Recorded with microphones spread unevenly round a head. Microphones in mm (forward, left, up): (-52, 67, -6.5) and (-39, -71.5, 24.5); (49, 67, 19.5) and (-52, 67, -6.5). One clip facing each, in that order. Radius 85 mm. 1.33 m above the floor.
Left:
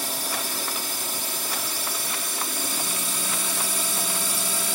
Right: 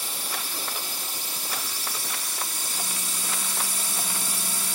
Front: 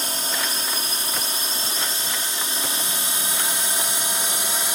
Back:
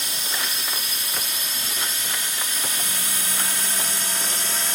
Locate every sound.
0.0 s a drone: 50° left; by 4.8 s 75° left